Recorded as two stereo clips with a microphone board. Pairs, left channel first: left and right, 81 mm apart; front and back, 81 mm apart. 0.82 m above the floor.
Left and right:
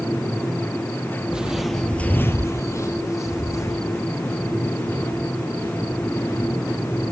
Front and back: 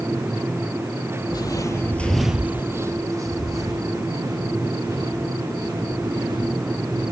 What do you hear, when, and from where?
1.3 s footsteps: 15° right, 1.3 m; by 7.0 s 145° left, 7 m